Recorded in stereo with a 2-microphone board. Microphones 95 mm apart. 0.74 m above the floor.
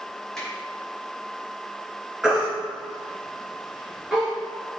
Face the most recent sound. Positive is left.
turn(degrees=-5)  # may be behind; listen again after turning